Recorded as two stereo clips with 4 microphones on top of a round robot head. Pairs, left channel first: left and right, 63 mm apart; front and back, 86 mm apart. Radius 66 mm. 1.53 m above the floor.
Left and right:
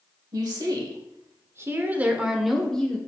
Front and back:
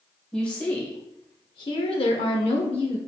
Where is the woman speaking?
80° right, 1.1 m; by 3.0 s 15° left, 1.0 m.